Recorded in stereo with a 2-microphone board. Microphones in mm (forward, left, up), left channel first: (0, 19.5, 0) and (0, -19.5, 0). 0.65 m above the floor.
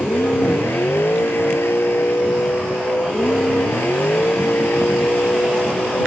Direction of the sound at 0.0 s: 85° left.